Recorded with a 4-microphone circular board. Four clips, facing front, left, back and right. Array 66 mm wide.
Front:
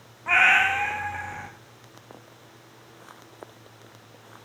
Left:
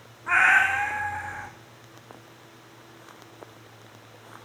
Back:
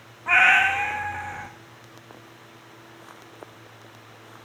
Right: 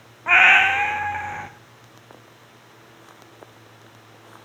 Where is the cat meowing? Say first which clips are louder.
Right 4 dB, back 2 dB; 90° right, 0.6 m.